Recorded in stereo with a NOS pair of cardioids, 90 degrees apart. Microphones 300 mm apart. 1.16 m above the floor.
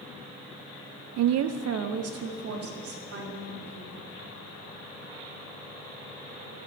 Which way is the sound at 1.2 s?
65° right.